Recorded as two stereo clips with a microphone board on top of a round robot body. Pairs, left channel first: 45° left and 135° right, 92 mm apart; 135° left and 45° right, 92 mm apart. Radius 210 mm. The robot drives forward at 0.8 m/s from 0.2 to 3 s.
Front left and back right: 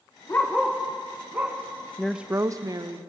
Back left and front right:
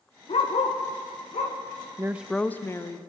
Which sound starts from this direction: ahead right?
A woman speaking, at 2.0 s.